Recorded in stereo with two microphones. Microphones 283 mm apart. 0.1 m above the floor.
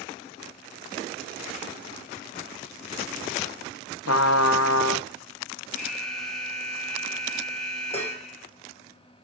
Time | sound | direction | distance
4.1 | a trumpet | 65° left (ahead or behind) | 0.7 m
5.8 | an alarm | centre (ahead or behind) | 4 m
7.9 | dishes clattering | 25° left (ahead or behind) | 1.4 m